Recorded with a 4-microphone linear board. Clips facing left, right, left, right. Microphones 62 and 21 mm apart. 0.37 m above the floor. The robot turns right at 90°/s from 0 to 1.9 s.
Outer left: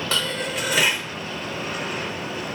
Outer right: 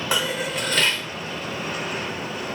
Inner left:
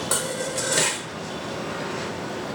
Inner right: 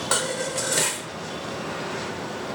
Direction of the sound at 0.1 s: 15° right (ahead or behind).